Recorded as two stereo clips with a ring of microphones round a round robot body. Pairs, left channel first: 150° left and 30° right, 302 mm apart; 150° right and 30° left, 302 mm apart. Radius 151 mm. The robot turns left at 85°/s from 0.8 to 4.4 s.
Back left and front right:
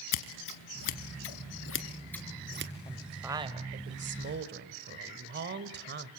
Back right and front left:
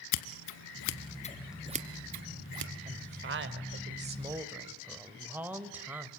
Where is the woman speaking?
80° left, 1.5 m; by 6.1 s 50° right, 1.5 m.